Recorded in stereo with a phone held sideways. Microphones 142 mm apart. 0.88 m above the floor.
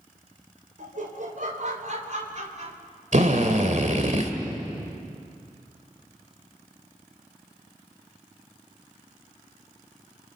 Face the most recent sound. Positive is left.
turn(degrees=-60)  # may be behind; listen again after turning